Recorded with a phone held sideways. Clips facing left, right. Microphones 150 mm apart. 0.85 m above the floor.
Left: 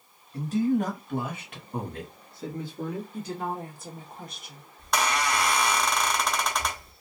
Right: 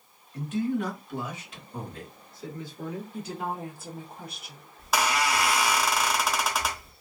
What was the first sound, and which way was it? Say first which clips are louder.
A man speaking: left 4 dB; 35° left (ahead or behind).